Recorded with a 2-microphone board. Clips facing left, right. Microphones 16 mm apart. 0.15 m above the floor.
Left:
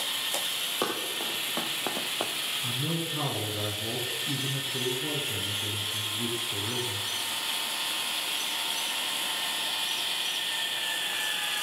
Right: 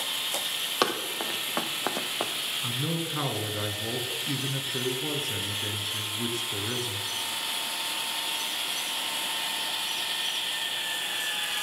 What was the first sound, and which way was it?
Running footsteps, 50° right (ahead or behind).